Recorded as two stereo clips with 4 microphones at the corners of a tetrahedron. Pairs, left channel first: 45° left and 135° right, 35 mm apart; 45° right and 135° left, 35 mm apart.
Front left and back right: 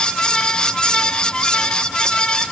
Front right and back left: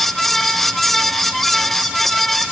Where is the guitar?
No guitar in this recording.